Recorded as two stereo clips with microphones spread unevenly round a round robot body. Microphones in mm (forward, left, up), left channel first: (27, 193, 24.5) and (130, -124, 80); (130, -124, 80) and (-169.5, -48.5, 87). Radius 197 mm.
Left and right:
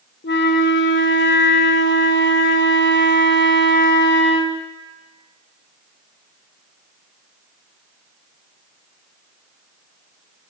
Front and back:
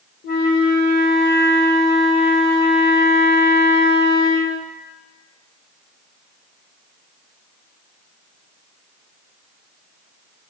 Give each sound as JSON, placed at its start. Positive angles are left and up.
{"t": 0.2, "sound": "a flute", "azimuth_deg": 50, "distance_m": 0.7}